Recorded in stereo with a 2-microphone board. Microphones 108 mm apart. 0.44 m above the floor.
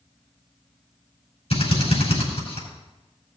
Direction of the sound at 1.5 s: 75° left (ahead or behind).